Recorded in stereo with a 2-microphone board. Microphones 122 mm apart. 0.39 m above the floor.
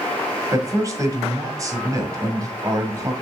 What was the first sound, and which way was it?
A man speaking, 30° right (ahead or behind).